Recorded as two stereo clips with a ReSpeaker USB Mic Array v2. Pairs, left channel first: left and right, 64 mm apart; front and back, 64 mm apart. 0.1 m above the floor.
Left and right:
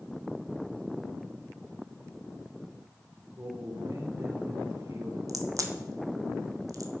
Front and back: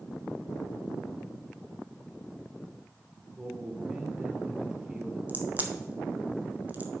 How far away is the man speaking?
About 2.5 m.